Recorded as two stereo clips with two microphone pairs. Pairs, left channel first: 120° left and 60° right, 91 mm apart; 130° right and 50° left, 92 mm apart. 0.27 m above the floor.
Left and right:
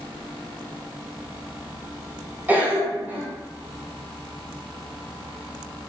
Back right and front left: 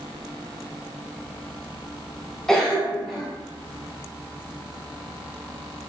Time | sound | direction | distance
2.5 | a cough | 55° right | 0.9 m